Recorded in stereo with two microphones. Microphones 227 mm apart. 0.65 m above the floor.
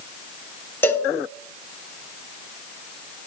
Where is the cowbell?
10° left (ahead or behind), 1.0 m.